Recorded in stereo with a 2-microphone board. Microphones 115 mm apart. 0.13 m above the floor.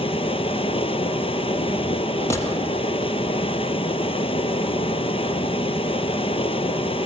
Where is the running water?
55° left (ahead or behind), 0.9 m.